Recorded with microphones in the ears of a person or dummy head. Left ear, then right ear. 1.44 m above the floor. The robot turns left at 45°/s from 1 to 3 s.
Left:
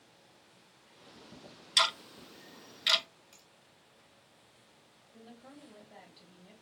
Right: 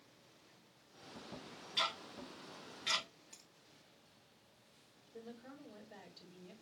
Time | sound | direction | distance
1.8 | ticking | 65° left (ahead or behind) | 0.6 m
3.3 | a finger snap | 10° left (ahead or behind) | 1.7 m
5.1 | a woman speaking | 10° left (ahead or behind) | 1.7 m